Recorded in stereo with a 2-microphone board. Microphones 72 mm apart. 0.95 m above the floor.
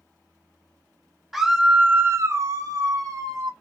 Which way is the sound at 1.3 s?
5° right (ahead or behind).